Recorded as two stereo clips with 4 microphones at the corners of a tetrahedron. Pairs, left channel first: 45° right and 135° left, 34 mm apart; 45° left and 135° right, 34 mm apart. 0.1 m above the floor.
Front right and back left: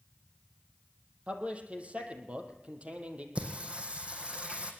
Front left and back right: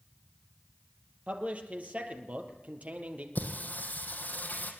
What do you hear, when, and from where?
1.3 s a man speaking: straight behind, 3 m
3.4 s singing: 80° left, 3 m